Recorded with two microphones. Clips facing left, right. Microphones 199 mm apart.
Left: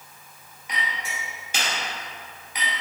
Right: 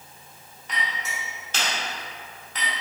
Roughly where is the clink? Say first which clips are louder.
Even; centre.